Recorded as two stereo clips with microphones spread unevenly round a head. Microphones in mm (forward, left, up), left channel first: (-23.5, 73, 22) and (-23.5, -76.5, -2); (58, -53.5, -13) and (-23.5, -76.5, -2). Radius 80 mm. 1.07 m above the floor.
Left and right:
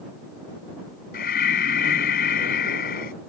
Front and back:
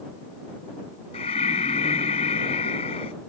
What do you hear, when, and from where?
1.1 s breathing: 50° left